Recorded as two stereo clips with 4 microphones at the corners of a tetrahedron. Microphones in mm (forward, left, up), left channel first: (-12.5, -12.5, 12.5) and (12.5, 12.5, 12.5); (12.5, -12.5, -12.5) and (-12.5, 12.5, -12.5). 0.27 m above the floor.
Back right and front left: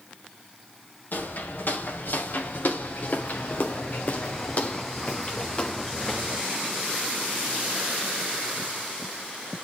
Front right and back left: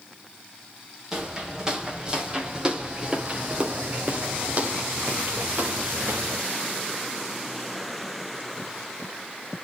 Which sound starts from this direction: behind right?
Footsteps, at 1.1 s.